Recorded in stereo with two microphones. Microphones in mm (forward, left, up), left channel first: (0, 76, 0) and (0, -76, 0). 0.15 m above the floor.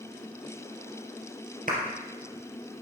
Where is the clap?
65° right (ahead or behind), 3 m.